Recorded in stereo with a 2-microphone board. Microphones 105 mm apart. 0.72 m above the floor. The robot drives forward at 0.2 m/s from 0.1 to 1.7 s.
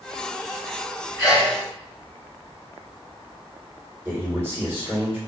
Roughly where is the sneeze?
Left.